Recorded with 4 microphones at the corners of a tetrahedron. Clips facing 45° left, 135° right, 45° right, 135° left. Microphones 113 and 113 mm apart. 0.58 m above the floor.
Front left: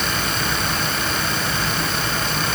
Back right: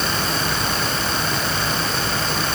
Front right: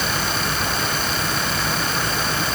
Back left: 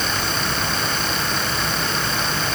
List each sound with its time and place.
Only background noise.